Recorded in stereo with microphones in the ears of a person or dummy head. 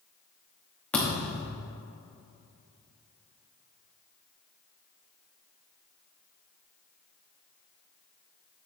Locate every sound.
0.9 s a thud: 10° left (ahead or behind), 1.0 m